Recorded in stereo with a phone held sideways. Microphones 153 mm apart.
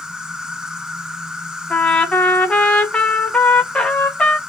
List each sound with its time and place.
0.0 s an insect: 5° right (ahead or behind), 1.2 m
1.7 s a trumpet: 5° left (ahead or behind), 1.0 m